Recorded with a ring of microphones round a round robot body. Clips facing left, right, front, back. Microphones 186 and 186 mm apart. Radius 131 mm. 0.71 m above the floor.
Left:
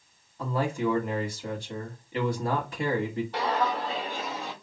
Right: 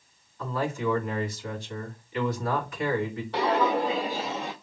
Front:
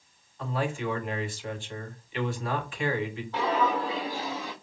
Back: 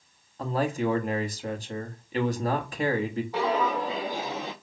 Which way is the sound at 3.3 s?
100° right.